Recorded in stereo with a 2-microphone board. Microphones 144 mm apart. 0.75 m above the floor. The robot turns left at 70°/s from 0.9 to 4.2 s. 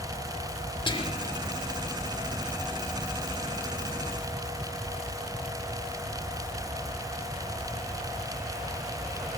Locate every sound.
0.9 s whispering: 40° left (ahead or behind), 2 m; by 1.4 s 60° left (ahead or behind), 2 m